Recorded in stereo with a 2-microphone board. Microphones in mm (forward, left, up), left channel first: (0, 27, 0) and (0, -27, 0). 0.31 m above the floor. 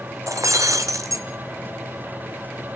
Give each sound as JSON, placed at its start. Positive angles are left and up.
{"t": 0.3, "sound": "breaking glass", "side_deg": -70, "distance_m": 0.9}